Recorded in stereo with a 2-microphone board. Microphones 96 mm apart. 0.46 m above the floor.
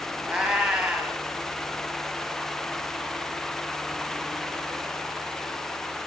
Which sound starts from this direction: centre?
A cat meowing, at 0.3 s.